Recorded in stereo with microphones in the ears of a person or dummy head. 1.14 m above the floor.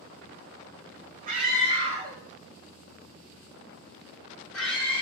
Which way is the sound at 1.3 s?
40° right (ahead or behind).